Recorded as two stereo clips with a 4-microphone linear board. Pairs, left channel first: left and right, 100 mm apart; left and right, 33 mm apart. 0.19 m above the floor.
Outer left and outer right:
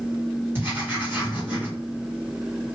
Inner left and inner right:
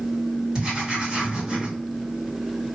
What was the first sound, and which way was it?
Writing, 25° right (ahead or behind).